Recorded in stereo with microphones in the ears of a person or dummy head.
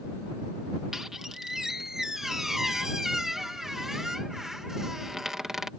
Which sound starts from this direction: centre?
A squeak, at 0.9 s.